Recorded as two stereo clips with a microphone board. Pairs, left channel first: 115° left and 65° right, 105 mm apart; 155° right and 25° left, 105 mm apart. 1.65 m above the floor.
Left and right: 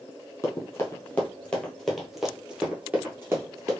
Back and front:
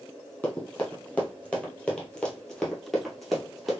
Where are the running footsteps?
145° left, 1.9 m; by 3.8 s 65° right, 1.9 m.